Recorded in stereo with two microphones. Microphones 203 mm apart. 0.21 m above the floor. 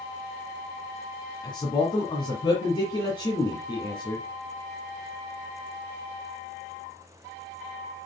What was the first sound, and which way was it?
A man speaking, 20° left (ahead or behind).